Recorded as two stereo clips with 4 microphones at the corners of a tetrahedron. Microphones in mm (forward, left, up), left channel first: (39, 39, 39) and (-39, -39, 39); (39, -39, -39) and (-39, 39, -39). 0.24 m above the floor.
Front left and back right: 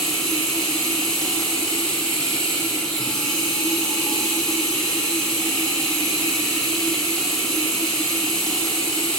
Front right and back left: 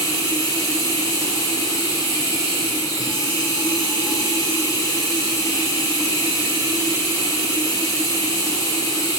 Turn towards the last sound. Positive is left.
turn(degrees=-35)